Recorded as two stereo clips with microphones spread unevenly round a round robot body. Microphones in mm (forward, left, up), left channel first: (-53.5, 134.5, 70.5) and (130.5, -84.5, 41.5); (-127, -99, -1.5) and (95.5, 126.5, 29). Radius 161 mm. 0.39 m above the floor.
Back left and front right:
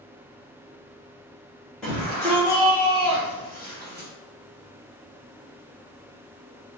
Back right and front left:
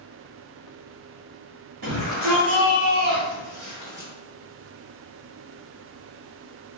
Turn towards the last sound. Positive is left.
turn(degrees=-40)